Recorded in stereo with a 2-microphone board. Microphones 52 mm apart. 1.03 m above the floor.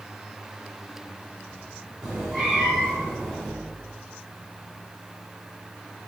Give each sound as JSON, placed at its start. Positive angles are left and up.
{"t": 2.0, "sound": "a cat meowing", "side_deg": -10, "distance_m": 3.0}